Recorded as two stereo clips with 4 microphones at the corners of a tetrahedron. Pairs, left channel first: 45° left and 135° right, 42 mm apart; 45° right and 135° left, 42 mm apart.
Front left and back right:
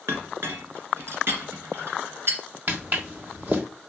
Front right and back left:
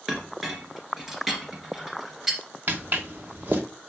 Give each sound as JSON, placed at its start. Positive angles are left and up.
{"t": 0.1, "sound": "a clink", "azimuth_deg": -145, "distance_m": 2.0}
{"t": 2.7, "sound": "footsteps", "azimuth_deg": 180, "distance_m": 1.8}